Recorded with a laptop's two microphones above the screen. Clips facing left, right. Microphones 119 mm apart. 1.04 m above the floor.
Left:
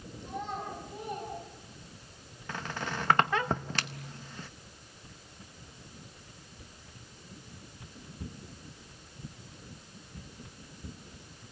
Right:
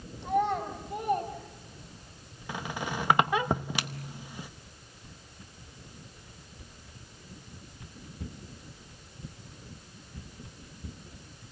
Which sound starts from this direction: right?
A child speaking, at 0.2 s.